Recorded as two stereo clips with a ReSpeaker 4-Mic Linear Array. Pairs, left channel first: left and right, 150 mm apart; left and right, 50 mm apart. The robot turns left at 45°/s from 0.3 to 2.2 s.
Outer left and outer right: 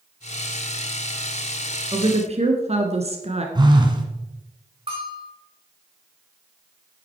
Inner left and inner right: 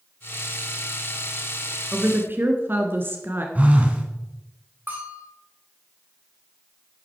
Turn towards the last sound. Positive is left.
turn(degrees=-40)  # may be behind; listen again after turning